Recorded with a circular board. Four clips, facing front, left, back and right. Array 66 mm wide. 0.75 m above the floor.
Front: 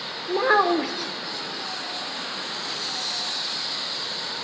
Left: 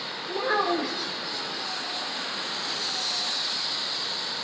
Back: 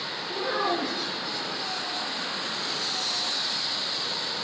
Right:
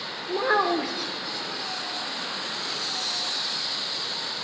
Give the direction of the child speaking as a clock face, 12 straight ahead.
12 o'clock.